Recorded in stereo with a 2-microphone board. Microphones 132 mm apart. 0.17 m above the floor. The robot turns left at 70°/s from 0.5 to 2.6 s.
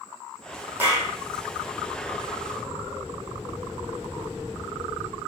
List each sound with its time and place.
0.8 s a clap: 15° right (ahead or behind), 4.5 m; by 1.1 s 10° left (ahead or behind), 4.5 m